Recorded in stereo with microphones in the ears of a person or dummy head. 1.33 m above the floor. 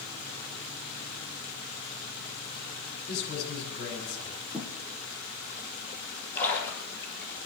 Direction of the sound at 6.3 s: 10° left (ahead or behind).